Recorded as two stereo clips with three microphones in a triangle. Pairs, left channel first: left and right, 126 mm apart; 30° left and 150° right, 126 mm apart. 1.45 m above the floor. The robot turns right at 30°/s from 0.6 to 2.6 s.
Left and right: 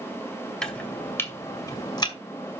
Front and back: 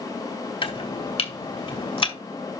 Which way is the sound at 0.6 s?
5° left.